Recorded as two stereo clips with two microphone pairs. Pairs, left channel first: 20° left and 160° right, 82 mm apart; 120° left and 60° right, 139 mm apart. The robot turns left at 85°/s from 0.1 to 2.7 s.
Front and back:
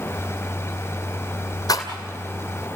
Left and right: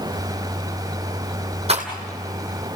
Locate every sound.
1.7 s a rattle: 20° right, 2.5 m; by 1.9 s 35° right, 2.5 m